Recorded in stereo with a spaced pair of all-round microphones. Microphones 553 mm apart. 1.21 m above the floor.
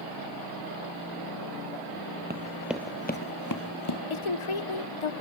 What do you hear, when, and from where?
2.3 s running footsteps: 20° right (ahead or behind), 1.9 m; by 4.0 s 55° left (ahead or behind), 2 m
4.1 s a woman speaking: 65° left (ahead or behind), 0.8 m